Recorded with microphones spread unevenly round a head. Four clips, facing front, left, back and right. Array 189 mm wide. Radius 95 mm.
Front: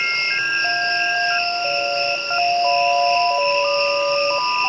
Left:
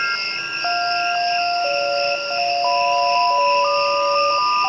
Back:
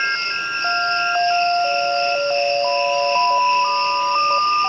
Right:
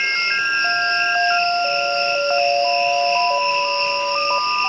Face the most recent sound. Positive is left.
turn(degrees=25)